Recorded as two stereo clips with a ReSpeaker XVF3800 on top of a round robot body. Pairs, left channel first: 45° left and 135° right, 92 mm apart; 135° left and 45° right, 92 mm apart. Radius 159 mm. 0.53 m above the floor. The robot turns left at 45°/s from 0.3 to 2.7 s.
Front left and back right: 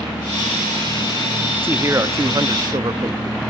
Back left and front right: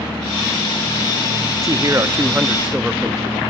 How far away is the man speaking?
About 1.2 m.